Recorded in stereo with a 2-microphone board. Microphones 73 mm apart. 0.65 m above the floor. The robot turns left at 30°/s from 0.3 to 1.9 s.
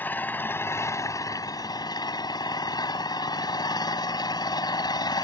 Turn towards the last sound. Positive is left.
turn(degrees=105)